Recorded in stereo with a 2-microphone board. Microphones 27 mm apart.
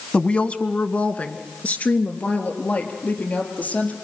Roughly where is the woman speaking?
Left.